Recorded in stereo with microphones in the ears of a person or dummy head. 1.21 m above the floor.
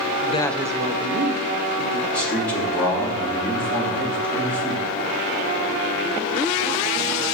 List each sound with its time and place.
0.2 s a woman speaking: 40° left (ahead or behind), 0.5 m; by 2.4 s 65° right (ahead or behind), 2 m
2.1 s a man speaking: centre (ahead or behind), 2.5 m